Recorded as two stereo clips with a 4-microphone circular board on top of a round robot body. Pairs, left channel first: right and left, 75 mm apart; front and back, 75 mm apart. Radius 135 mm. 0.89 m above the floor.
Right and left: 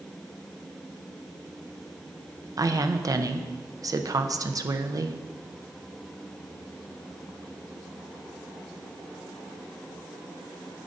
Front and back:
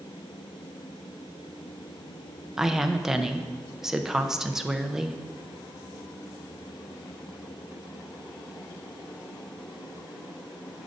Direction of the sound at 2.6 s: 95° left.